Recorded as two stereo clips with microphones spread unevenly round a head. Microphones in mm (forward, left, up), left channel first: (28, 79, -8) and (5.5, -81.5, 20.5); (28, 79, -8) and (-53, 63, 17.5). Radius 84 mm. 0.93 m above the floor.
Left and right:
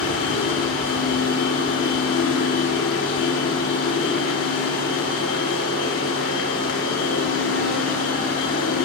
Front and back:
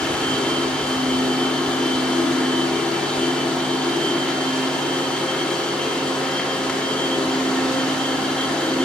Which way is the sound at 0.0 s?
90° left.